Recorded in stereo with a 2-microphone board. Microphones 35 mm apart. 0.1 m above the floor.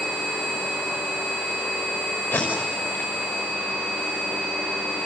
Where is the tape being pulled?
70° left (ahead or behind), 6 m.